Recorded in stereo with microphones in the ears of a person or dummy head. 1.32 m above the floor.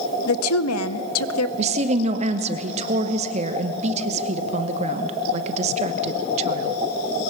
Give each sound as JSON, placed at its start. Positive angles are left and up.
{"t": 0.3, "sound": "a woman speaking", "side_deg": 75, "distance_m": 0.8}
{"t": 1.6, "sound": "a woman speaking", "side_deg": -50, "distance_m": 1.1}